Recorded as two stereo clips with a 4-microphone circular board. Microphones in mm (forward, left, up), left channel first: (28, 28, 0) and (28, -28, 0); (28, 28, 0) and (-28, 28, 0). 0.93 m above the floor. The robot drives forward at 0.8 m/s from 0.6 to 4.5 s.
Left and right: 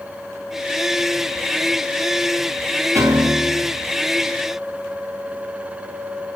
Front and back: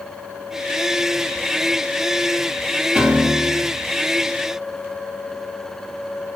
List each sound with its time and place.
3.0 s a piano: 105° right, 4.5 m; by 3.8 s 110° right, 5 m